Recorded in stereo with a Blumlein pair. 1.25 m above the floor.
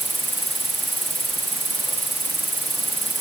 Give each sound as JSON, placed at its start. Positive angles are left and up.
{"t": 0.0, "sound": "an insect", "azimuth_deg": -10}